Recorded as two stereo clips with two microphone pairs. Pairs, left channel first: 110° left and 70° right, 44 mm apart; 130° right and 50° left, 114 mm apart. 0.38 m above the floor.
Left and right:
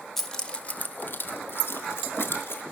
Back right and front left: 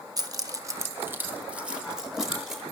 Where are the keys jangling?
35° left, 0.6 m; by 2.6 s 135° left, 1.5 m.